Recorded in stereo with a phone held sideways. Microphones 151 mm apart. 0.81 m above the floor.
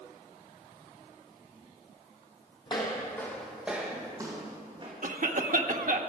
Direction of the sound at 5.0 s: 60° right (ahead or behind).